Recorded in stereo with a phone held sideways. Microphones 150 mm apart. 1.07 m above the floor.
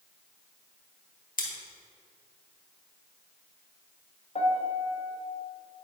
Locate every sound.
1.4 s scissors: 65° left (ahead or behind), 1.3 m
4.3 s a piano: 40° left (ahead or behind), 0.9 m